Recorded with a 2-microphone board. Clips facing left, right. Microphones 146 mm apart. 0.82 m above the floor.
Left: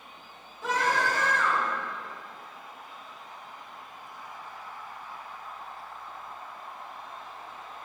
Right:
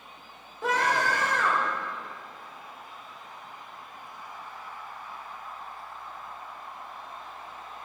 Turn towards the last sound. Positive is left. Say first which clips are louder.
# right 1 dB
turn(degrees=-80)